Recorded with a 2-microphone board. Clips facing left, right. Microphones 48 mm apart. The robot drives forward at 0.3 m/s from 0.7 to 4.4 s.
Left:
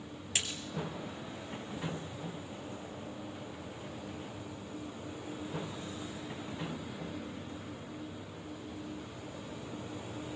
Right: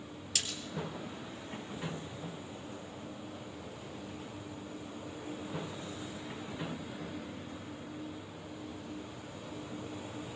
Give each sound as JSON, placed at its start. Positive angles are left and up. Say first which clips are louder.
{"t": 0.3, "sound": "a splash", "louder": "left 2 dB", "side_deg": 30, "distance_m": 2.5}